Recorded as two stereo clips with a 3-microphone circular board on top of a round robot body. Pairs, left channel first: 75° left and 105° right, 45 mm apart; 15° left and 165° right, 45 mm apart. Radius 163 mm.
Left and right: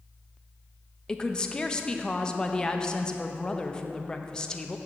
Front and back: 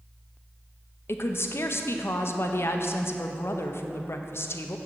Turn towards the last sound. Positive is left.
turn(degrees=5)